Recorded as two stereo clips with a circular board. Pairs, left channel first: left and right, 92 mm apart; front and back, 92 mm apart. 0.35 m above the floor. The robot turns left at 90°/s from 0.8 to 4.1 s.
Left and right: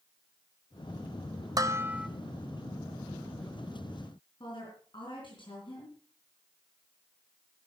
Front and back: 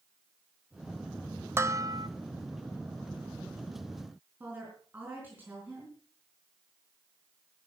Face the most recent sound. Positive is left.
turn(degrees=110)